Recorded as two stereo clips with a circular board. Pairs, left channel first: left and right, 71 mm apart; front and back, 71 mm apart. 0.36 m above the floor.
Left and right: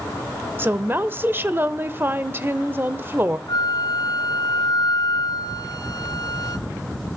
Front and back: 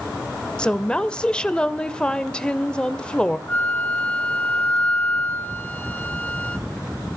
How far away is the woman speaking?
About 1.0 m.